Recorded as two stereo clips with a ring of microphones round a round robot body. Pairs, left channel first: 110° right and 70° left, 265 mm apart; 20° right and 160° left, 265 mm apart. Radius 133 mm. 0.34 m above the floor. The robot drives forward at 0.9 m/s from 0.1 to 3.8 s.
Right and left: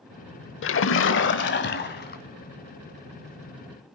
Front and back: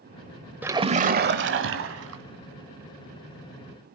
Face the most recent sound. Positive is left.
turn(degrees=-170)